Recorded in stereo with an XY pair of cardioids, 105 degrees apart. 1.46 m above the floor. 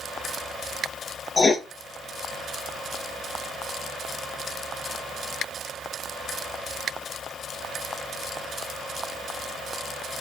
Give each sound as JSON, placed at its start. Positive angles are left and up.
{"t": 1.4, "sound": "writing", "azimuth_deg": 25, "distance_m": 1.6}